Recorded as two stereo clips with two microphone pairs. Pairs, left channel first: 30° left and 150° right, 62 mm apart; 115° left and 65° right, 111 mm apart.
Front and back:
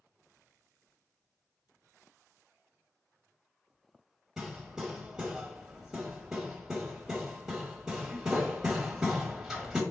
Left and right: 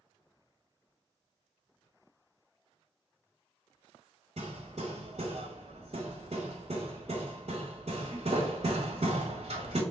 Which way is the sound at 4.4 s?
70° right.